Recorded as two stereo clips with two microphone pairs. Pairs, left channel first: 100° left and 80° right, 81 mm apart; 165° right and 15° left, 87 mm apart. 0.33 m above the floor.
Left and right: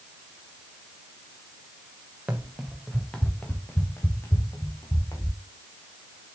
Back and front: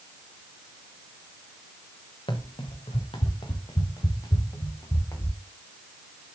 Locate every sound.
2.3 s running footsteps: 150° right, 2 m; by 5.4 s 140° left, 4 m